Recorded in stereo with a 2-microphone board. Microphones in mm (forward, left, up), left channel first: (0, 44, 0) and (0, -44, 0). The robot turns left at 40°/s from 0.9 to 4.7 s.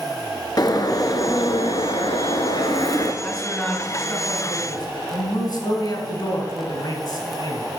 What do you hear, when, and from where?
0.6 s a bird: 135° left, 1.0 m; by 3.1 s 45° left, 1.0 m
3.2 s a man speaking: 175° left, 3 m; by 7.7 s 115° left, 3 m